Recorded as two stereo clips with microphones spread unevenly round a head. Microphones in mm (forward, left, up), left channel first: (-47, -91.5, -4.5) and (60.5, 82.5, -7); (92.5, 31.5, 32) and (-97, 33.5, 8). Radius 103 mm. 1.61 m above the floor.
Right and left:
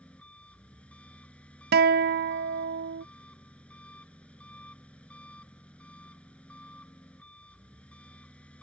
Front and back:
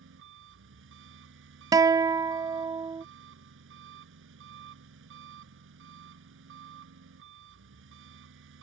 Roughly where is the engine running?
Behind left.